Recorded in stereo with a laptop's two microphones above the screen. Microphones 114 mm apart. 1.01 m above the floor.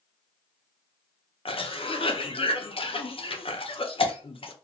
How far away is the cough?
About 0.5 m.